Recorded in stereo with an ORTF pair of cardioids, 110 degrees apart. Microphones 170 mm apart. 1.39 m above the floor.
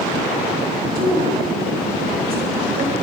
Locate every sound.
0.9 s a woman speaking: 65° right, 6 m